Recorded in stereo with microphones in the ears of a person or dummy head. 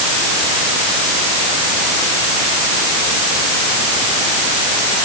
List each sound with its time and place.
Only background noise.